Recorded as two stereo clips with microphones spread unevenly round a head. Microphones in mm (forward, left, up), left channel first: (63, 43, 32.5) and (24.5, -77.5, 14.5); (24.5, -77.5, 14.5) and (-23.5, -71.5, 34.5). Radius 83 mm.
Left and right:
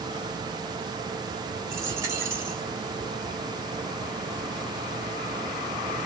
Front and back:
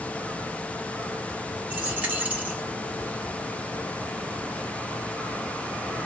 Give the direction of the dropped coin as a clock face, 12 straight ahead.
6 o'clock.